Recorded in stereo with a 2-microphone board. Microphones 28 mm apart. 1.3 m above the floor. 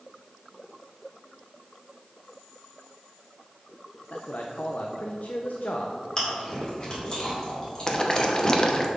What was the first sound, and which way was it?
A man speaking, 80° left.